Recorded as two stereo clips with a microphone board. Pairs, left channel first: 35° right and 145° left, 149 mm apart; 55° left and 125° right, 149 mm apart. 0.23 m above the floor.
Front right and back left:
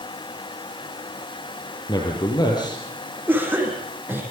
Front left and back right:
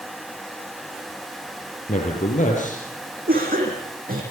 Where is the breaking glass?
No breaking glass in this recording.